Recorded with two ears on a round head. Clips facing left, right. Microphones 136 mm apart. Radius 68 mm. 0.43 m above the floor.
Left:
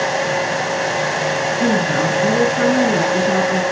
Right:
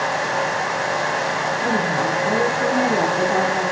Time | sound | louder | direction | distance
1.6 | a woman speaking | left 5 dB | 60° left (ahead or behind) | 7 m